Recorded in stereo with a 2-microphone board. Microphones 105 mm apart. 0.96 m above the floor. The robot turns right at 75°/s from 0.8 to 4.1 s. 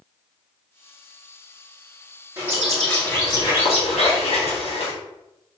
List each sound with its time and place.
2.4 s a bird: 30° right, 2 m; by 4.9 s 100° left, 2 m